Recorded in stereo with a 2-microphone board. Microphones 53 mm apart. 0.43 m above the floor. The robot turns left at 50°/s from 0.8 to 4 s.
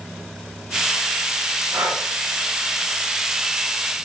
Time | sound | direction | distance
1.7 | breathing | 75° right (ahead or behind) | 0.8 m